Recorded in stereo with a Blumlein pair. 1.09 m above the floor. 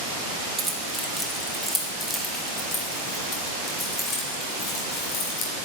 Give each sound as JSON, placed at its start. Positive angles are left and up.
{"t": 0.6, "sound": "keys jangling", "azimuth_deg": -10, "distance_m": 2.5}